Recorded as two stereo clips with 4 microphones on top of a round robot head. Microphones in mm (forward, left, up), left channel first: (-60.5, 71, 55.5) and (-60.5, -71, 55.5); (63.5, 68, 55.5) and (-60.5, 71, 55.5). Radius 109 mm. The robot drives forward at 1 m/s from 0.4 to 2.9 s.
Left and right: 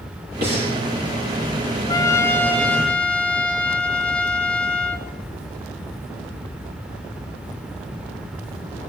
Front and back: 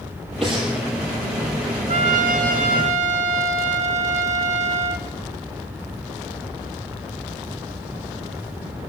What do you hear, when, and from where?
0.4 s breathing: 90° right, 4.5 m; by 0.8 s 95° right, 4.5 m
1.9 s a trumpet: 155° left, 0.5 m; by 5.1 s 170° left, 1.5 m